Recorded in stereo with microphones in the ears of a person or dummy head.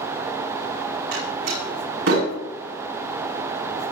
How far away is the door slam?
About 9 m.